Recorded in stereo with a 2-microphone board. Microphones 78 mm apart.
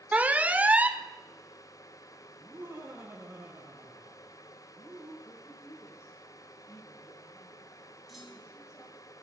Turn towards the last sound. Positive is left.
turn(degrees=0)  # may be behind; listen again after turning